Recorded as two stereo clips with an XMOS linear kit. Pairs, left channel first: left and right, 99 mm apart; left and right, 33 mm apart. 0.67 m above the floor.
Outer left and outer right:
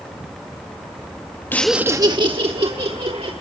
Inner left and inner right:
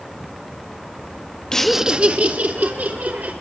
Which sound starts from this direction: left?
Laughter, at 1.5 s.